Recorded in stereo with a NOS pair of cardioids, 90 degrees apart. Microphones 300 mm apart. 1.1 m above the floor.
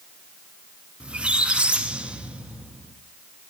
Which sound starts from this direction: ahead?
A squeak, at 1.0 s.